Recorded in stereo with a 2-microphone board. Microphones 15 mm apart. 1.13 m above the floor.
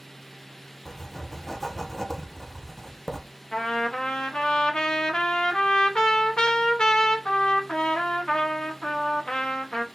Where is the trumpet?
75° left (ahead or behind), 0.9 m.